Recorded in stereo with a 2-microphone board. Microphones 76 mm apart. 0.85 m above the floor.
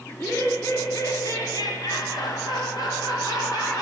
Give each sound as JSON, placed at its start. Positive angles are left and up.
{"t": 0.1, "sound": "laughter", "side_deg": 35, "distance_m": 1.9}